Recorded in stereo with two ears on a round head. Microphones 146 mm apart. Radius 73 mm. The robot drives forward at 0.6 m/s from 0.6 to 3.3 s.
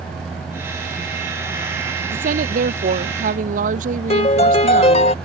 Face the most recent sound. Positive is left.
turn(degrees=35)  # may be behind; listen again after turning